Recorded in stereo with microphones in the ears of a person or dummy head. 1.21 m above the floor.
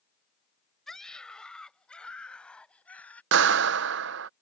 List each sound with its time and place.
0.9 s a scream: centre (ahead or behind)
3.3 s a clap: 60° right (ahead or behind)